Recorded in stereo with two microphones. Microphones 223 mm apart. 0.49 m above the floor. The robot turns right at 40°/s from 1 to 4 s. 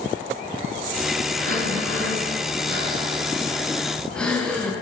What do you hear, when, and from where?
1.4 s breathing: 105° right, 6.5 m; by 4.7 s 5° left, 6.5 m